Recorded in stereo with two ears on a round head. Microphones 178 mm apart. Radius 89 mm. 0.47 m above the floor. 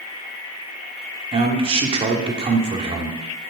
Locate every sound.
1.3 s a man speaking: 30° right (ahead or behind), 0.9 m